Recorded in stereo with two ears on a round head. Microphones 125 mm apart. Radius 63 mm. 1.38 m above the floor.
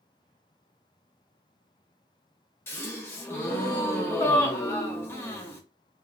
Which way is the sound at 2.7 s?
15° left (ahead or behind).